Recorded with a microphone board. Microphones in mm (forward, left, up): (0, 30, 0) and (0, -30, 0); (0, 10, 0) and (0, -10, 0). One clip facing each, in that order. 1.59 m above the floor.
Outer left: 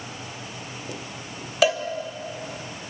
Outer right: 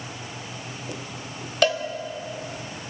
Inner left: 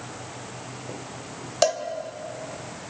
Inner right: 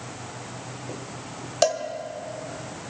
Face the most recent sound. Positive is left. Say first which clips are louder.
# outer left 1 dB, even
turn(degrees=5)  # may be behind; listen again after turning